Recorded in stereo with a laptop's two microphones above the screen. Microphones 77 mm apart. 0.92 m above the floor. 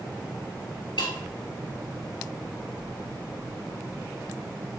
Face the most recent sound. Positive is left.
turn(degrees=75)  # may be behind; listen again after turning